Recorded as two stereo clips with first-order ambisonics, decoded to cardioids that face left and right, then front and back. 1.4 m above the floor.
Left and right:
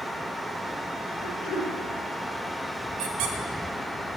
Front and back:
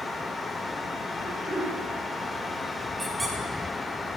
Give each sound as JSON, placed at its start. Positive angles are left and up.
{"t": 1.2, "sound": "throat clearing", "azimuth_deg": 95, "distance_m": 2.5}
{"t": 3.0, "sound": "a squeak", "azimuth_deg": -95, "distance_m": 0.9}